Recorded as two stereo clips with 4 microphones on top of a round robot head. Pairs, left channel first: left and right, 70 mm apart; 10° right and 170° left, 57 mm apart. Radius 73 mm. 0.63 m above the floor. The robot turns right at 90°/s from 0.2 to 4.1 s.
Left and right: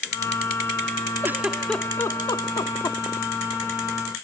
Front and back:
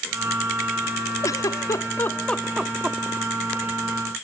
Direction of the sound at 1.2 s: 30° right.